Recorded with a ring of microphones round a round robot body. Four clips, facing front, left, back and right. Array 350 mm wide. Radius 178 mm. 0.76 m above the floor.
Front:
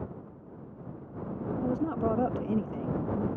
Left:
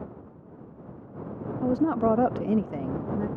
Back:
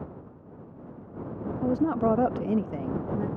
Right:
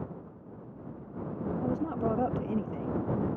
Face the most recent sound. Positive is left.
turn(degrees=120)